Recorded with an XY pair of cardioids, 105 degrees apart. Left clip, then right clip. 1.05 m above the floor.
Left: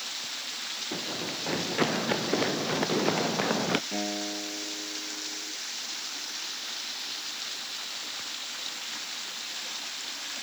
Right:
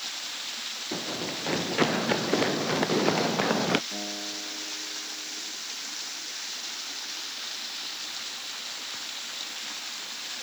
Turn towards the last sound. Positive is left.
turn(degrees=35)